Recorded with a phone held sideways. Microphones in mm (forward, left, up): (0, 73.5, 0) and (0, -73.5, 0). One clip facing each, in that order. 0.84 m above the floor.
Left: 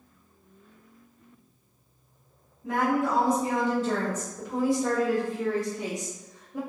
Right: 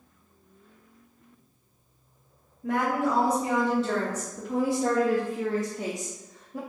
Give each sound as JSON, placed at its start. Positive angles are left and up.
{"t": 2.6, "sound": "a woman speaking", "side_deg": -65, "distance_m": 1.9}